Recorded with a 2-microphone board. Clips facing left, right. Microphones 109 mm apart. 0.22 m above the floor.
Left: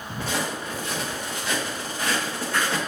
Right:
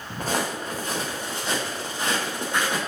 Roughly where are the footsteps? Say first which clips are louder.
Right 2 dB; right.